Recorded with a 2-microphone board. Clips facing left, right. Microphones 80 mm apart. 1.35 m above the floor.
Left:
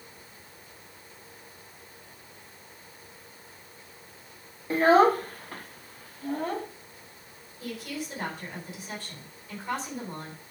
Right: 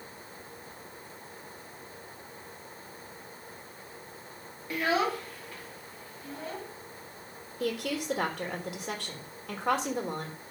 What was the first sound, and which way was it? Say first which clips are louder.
A child speaking: left 9 dB; 35° left (ahead or behind).